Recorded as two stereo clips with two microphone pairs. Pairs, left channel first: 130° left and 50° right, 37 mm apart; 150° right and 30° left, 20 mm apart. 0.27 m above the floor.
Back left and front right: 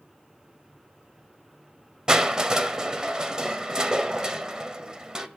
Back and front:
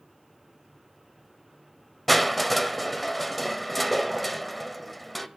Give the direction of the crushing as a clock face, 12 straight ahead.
2 o'clock.